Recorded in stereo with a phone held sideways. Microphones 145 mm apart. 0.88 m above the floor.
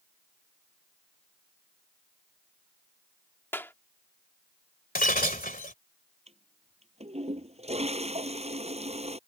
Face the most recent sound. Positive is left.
turn(degrees=-45)  # may be behind; listen again after turning